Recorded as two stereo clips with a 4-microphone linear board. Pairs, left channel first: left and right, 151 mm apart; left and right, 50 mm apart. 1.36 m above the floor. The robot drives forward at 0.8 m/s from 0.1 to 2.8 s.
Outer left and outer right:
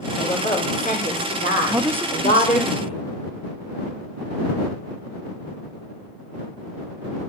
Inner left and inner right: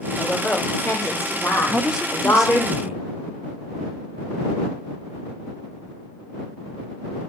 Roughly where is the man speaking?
Centre.